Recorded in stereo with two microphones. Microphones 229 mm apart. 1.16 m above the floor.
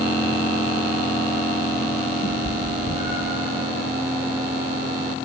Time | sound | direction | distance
2.2 | a cat meowing | 25° left (ahead or behind) | 7 m